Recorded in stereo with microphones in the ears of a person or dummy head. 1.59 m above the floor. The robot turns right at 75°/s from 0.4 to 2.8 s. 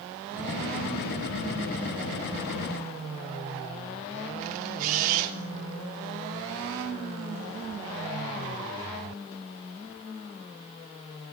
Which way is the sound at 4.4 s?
50° right (ahead or behind).